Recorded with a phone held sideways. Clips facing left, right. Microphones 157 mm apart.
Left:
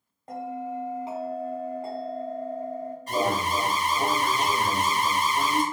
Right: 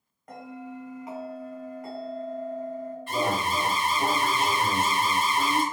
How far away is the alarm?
About 0.8 m.